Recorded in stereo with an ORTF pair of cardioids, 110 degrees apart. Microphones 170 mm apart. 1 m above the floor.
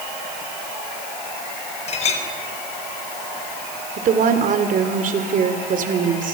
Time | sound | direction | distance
1.9 | a clink | 40° left | 4.5 m
4.0 | a woman speaking | 55° right | 3.5 m